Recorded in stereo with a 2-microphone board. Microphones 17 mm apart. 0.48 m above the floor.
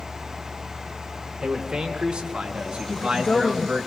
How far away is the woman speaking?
About 2 m.